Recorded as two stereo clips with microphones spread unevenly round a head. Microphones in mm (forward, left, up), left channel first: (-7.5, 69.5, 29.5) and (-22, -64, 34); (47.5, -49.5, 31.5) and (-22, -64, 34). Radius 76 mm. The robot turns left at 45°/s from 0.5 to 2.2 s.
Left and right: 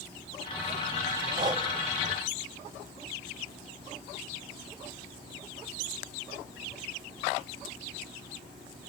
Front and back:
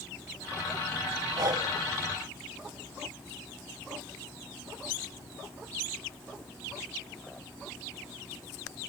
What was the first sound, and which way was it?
Breathing, 150° right.